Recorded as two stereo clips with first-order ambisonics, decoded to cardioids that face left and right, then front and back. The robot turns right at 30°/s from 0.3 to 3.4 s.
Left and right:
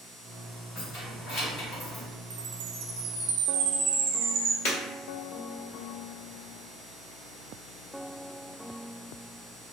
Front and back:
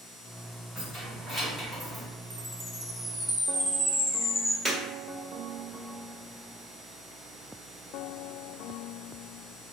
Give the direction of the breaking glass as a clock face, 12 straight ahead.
9 o'clock.